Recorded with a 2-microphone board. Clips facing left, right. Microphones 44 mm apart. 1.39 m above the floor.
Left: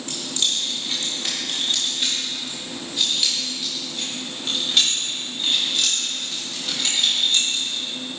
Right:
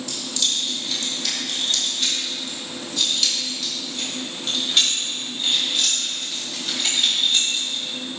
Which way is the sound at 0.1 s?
35° left (ahead or behind).